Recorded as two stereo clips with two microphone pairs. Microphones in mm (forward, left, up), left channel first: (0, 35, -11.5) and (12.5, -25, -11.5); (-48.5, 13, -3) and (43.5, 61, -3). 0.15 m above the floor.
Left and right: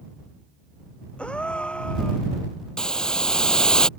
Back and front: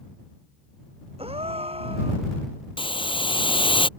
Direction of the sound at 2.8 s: Straight behind.